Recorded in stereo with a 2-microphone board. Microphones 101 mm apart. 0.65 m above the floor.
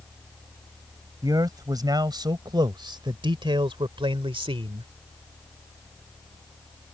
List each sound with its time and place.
1.2 s a man speaking: 40° right (ahead or behind); by 4.9 s 70° right (ahead or behind)